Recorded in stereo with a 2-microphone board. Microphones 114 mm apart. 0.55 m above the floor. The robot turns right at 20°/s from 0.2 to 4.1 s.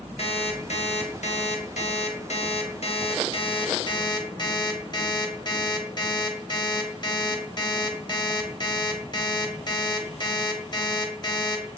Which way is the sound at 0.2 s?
60° left.